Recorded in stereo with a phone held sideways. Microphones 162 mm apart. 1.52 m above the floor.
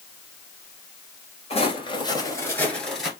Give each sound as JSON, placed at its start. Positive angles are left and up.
{"t": 1.5, "sound": "footsteps", "side_deg": 35, "distance_m": 1.8}